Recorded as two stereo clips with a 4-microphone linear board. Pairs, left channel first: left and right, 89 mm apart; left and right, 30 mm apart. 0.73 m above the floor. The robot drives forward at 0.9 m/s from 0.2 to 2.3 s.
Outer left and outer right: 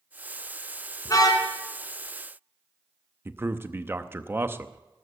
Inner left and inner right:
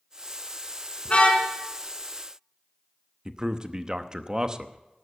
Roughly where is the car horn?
Left.